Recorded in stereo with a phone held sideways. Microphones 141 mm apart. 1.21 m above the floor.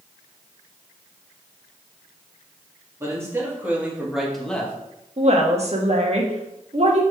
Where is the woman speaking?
50° right (ahead or behind), 1.6 m.